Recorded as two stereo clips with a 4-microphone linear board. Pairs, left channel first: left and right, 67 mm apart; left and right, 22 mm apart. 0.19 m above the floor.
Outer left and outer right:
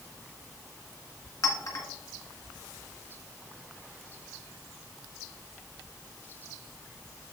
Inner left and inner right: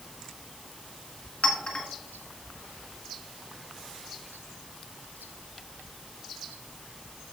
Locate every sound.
1.4 s a clink: 55° left (ahead or behind), 1.5 m